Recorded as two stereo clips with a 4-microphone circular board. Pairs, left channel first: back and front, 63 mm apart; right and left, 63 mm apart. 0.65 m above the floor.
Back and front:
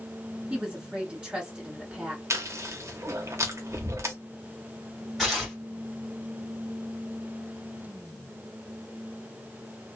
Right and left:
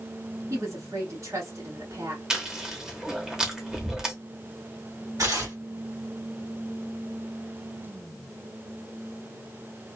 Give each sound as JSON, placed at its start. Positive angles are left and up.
{"t": 0.5, "sound": "a woman speaking", "azimuth_deg": 75, "distance_m": 1.6}
{"t": 2.3, "sound": "chewing", "azimuth_deg": 10, "distance_m": 0.8}
{"t": 5.2, "sound": "tearing paper", "azimuth_deg": 90, "distance_m": 1.8}